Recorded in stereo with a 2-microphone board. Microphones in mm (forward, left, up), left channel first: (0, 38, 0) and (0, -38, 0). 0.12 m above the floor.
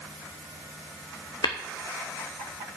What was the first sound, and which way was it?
Tapping, 60° left (ahead or behind).